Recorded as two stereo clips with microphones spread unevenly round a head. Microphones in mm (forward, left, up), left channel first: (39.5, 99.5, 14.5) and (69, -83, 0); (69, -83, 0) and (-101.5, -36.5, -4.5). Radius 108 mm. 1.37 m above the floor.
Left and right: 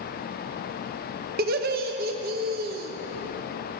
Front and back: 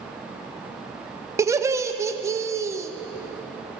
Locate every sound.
1.4 s laughter: 120° right, 0.8 m